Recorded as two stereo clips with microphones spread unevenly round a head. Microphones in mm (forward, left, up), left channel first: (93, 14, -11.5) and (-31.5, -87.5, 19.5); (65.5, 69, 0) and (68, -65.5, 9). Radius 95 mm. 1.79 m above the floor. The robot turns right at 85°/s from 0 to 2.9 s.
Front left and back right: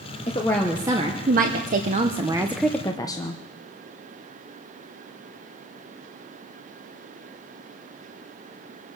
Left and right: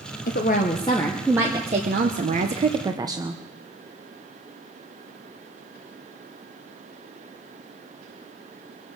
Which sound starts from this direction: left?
A woman speaking, at 0.3 s.